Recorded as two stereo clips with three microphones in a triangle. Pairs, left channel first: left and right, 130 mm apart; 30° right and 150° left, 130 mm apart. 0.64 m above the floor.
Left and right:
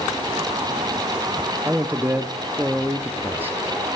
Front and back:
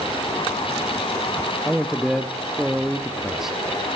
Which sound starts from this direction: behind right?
A man speaking, at 1.6 s.